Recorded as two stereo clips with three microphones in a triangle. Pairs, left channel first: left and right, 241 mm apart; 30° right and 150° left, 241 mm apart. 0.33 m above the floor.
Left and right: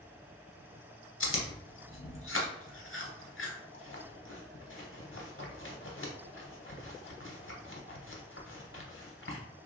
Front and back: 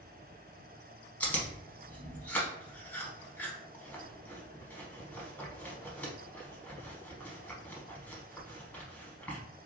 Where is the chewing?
55° left, 0.7 m.